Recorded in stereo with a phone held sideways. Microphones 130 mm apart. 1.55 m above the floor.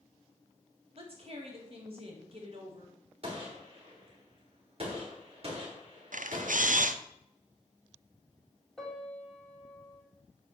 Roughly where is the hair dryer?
I don't hear a hair dryer.